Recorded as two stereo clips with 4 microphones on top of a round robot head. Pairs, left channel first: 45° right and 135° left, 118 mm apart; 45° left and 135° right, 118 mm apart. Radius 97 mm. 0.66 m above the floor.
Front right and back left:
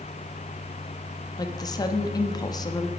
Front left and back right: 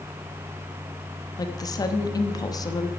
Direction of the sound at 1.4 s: Straight ahead.